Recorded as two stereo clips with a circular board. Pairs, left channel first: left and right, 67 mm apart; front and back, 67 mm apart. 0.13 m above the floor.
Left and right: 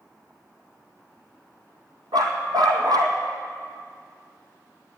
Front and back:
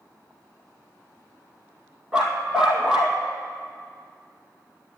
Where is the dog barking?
100° right, 1.8 m.